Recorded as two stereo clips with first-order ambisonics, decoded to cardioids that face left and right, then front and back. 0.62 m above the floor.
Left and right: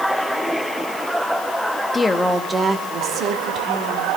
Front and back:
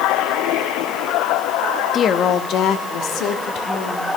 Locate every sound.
1.9 s a woman speaking: 35° left, 0.7 m; by 4.2 s 40° right, 2 m